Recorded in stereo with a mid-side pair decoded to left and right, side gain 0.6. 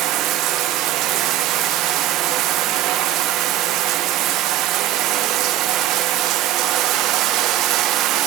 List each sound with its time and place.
0.0 s running water: 65° right, 0.8 m